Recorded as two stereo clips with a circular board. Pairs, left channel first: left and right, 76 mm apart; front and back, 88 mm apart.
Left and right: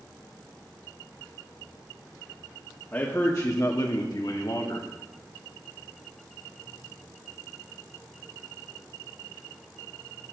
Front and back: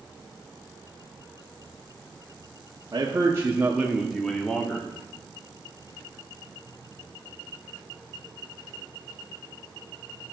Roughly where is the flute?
I don't hear a flute.